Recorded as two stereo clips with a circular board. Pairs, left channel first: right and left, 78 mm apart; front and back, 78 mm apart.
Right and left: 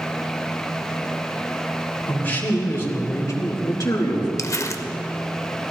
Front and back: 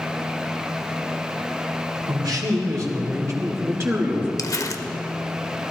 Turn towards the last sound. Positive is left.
turn(degrees=-40)